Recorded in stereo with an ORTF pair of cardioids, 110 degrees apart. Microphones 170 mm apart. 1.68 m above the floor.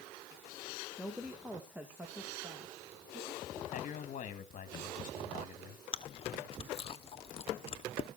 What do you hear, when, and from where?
1.0 s a woman speaking: 5° left, 1.7 m; by 3.6 s 20° right, 4.5 m
3.7 s a man speaking: 50° left, 2.5 m
5.9 s chewing: 35° left, 1.2 m